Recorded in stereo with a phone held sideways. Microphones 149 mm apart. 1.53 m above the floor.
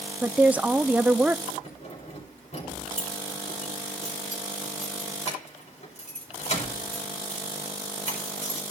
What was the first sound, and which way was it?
A woman speaking, 10° right (ahead or behind).